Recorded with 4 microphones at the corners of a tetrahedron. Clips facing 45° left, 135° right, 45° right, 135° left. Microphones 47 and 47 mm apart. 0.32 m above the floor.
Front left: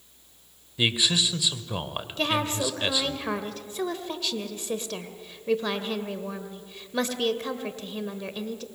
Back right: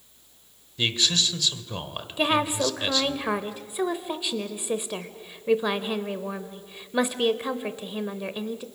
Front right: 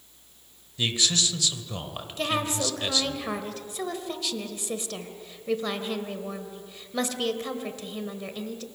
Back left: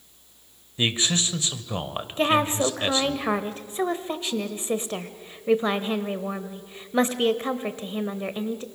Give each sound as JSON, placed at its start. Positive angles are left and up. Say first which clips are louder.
{"t": 0.8, "sound": "a man speaking", "louder": "front left 1 dB, back left 2 dB", "azimuth_deg": 115, "distance_m": 1.3}
{"t": 2.2, "sound": "a woman speaking", "louder": "back right 3 dB, back left 6 dB", "azimuth_deg": 165, "distance_m": 0.9}